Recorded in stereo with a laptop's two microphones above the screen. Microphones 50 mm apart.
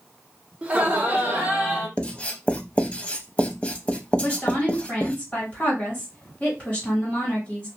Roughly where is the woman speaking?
Centre.